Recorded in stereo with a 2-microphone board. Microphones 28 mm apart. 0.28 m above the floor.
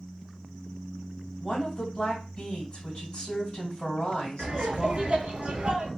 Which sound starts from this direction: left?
A woman speaking, at 1.4 s.